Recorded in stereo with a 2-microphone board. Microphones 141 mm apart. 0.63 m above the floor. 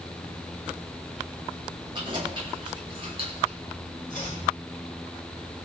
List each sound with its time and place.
1.9 s keys jangling: 35° right (ahead or behind), 7 m; by 3.6 s 50° right (ahead or behind), 5.5 m
4.1 s chopping: 65° left (ahead or behind), 5 m